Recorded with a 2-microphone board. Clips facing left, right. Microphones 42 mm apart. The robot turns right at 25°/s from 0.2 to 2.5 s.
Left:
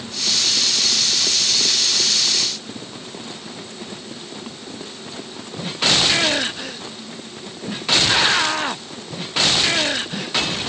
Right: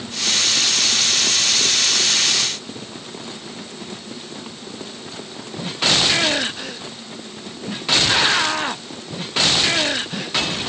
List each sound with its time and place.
Only background noise.